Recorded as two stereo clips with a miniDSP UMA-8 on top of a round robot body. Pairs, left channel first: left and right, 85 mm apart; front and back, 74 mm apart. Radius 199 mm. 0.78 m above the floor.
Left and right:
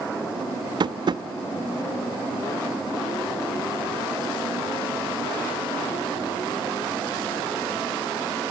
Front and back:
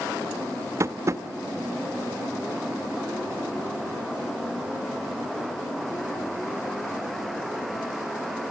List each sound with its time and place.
0.8 s tapping: 130° right, 0.9 m